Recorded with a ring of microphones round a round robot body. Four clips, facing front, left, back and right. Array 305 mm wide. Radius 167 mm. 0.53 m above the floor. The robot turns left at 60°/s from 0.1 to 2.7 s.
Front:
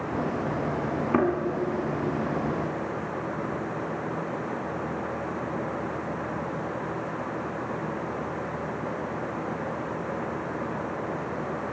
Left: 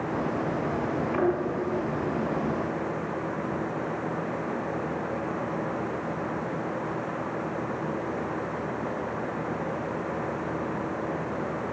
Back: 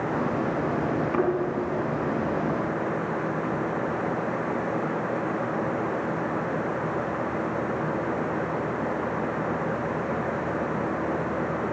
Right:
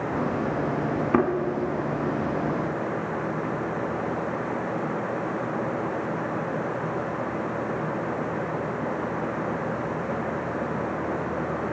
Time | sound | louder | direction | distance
1.1 | a thud | right 3 dB, front 2 dB | 70° right | 2.5 m